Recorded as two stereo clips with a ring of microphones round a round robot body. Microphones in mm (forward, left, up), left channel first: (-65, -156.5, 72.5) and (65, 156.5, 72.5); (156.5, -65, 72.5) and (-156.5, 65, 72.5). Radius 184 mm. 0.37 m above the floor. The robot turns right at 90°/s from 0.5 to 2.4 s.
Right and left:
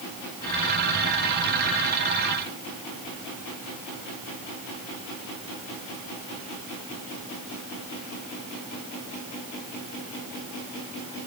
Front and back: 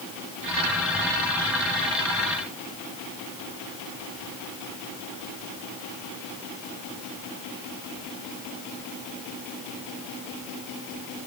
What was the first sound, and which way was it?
Only background noise.